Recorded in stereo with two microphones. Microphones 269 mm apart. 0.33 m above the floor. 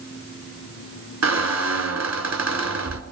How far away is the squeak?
About 1.0 m.